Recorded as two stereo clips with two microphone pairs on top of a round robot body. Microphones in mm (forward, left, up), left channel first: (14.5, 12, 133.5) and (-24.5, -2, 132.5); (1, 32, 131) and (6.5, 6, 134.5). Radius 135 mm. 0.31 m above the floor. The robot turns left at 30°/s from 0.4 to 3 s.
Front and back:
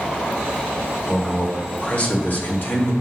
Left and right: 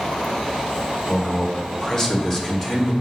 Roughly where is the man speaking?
Left.